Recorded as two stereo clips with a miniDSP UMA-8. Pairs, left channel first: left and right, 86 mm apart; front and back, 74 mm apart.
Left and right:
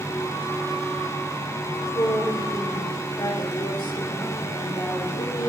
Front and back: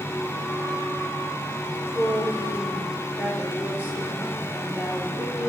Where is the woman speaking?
115° left, 4 m.